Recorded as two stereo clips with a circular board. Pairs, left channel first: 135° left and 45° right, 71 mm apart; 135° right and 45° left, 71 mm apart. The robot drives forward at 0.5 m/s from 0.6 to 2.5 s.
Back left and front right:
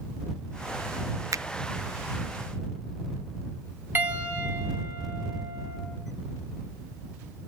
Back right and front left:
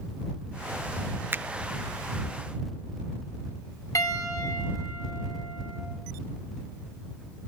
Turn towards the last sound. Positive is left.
turn(degrees=-100)